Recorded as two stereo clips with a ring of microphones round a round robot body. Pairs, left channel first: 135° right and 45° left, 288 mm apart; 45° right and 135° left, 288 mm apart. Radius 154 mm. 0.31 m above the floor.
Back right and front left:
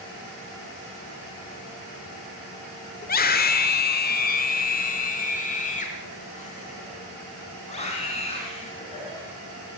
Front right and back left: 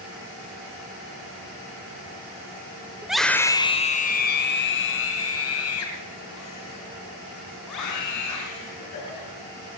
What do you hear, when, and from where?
3.0 s a scream: 145° right, 1.1 m; by 9.3 s 65° right, 4.5 m